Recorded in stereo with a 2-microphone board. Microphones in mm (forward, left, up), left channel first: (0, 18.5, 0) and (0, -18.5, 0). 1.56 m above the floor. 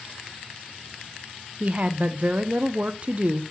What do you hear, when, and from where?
1.6 s a woman speaking: 35° right (ahead or behind), 0.6 m